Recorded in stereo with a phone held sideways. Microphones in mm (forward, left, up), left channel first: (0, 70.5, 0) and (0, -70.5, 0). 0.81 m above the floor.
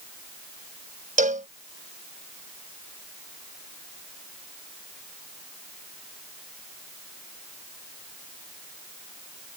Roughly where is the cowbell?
Right.